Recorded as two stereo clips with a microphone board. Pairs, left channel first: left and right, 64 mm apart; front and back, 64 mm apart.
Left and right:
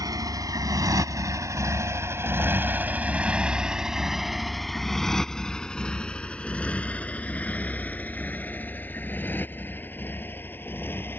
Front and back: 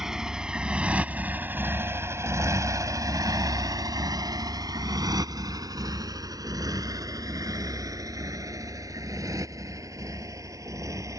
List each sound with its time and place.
0.0 s a motorcycle: 95° right; by 11.2 s 145° left